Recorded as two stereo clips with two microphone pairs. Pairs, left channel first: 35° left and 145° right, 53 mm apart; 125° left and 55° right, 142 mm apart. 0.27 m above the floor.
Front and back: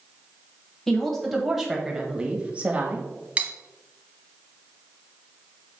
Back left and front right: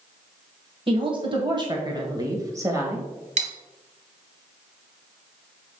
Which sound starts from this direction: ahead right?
A woman speaking, at 0.9 s.